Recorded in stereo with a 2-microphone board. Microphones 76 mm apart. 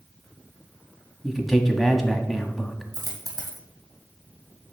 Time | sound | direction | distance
1.2 | a man speaking | centre (ahead or behind) | 1.1 m
2.9 | a dropped coin | 55° right (ahead or behind) | 1.7 m